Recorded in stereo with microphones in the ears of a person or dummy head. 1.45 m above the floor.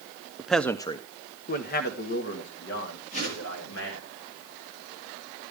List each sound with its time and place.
0.4 s a man speaking: centre (ahead or behind), 0.6 m; by 4.1 s 80° left, 3 m
3.1 s a whoosh: 35° left (ahead or behind), 10 m